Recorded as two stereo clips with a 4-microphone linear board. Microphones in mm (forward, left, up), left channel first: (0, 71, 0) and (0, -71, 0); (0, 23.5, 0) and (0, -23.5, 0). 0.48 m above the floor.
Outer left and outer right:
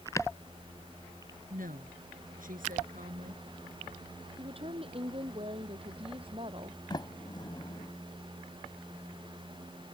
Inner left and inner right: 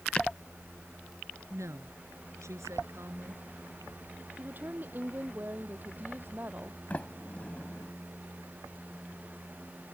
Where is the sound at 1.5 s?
80° right.